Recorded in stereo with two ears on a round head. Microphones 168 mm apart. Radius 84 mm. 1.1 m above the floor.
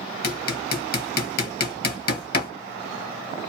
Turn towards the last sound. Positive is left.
turn(degrees=55)  # may be behind; listen again after turning